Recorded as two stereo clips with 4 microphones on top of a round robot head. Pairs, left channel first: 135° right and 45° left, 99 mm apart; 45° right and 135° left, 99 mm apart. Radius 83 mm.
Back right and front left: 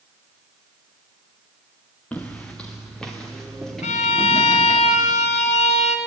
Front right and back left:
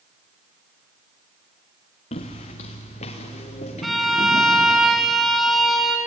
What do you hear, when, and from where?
2.1 s footsteps: 55° right, 2.5 m; by 4.8 s 45° right, 4.5 m
3.8 s a violin: 135° right, 2 m